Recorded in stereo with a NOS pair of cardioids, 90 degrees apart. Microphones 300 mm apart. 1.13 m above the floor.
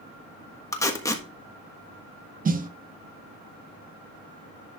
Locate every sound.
0.7 s tape being pulled: 10° left, 1.4 m
2.5 s a snare drum: 30° right, 0.9 m